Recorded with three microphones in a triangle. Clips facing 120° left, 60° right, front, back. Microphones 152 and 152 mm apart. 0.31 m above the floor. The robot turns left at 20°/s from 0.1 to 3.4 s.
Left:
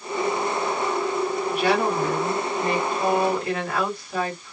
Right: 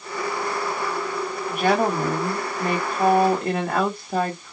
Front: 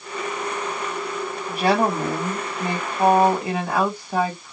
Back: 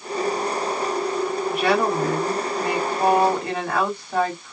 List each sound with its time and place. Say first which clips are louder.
1.5 s a woman speaking: right 3 dB, front 2 dB; 35° right, 2.5 m; by 4.5 s 75° right, 2.5 m